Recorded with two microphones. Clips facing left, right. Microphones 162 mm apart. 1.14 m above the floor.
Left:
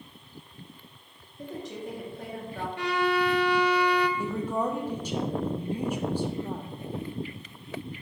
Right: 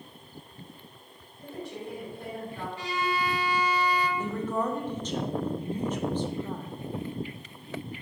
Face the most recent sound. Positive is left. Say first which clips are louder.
# left 1 dB
turn(degrees=10)  # may be behind; listen again after turning